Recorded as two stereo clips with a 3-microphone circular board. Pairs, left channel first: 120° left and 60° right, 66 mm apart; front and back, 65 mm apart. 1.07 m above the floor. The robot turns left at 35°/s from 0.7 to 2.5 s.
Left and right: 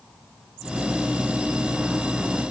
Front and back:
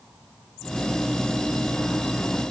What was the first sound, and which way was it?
Only background noise.